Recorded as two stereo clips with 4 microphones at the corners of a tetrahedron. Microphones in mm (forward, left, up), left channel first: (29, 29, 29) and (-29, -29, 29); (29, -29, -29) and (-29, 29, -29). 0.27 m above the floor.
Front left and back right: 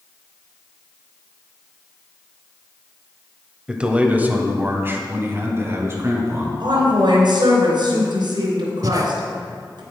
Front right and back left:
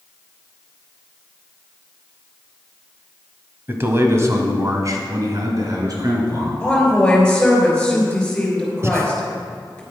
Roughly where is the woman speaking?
Behind right.